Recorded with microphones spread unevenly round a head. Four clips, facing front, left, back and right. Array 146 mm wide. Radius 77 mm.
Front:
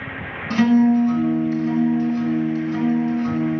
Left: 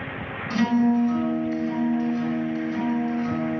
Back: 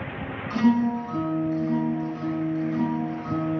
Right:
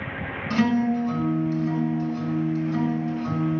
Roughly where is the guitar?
Ahead right.